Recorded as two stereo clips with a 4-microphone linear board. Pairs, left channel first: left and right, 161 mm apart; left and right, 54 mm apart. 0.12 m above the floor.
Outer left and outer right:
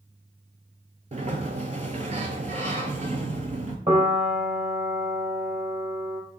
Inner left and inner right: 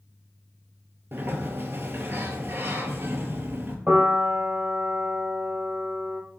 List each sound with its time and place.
1.1 s a sliding door: 45° right (ahead or behind), 0.5 m
3.9 s a piano: 50° right (ahead or behind), 1.0 m